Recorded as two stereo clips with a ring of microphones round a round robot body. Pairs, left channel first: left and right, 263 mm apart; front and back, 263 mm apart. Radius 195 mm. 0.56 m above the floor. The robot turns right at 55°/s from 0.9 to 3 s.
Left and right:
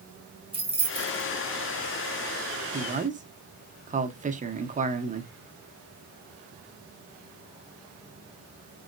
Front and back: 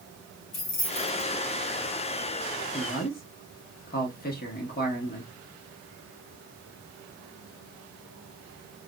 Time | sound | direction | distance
0.5 | keys jangling | 20° right | 1.8 m
2.7 | a man speaking | 55° right | 1.1 m